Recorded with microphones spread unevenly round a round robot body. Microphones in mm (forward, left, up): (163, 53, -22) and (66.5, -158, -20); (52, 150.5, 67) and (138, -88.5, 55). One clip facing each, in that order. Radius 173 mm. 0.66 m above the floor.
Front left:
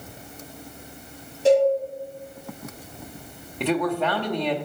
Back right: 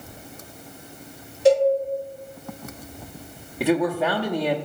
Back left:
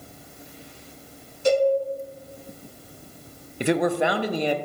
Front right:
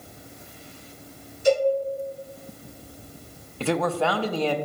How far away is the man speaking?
About 0.6 m.